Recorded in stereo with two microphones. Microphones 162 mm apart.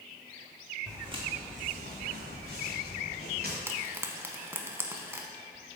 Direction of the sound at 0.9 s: 20° right (ahead or behind).